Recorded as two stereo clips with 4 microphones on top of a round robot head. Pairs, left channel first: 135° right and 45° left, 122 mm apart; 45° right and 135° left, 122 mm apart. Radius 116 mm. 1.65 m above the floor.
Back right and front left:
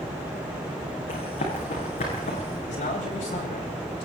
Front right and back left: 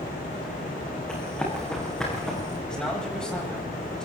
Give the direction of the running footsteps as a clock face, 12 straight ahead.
4 o'clock.